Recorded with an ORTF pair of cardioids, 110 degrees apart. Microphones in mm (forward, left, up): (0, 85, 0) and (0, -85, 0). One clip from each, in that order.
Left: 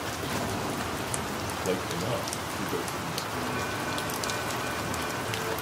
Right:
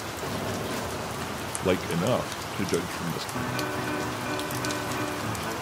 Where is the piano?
45° right, 3.5 m.